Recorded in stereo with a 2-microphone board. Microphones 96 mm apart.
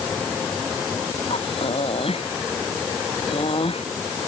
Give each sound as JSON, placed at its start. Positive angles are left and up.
{"t": 1.3, "sound": "breathing", "side_deg": 75}